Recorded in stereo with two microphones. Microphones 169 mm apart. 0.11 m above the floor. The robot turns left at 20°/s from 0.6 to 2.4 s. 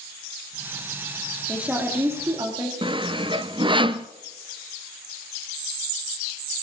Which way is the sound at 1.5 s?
5° right (ahead or behind).